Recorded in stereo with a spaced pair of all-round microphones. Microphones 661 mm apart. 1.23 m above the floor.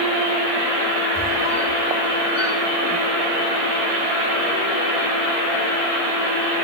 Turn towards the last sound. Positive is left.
turn(degrees=-10)  # may be behind; listen again after turning